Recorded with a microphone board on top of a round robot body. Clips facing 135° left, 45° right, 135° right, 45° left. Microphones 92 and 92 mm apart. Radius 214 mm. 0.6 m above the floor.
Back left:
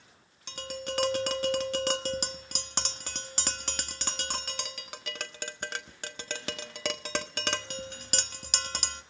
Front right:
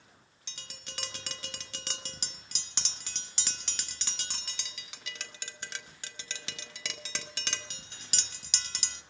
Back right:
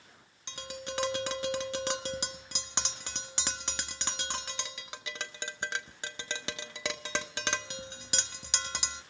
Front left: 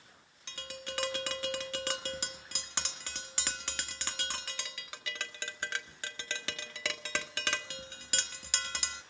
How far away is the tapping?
About 1.3 m.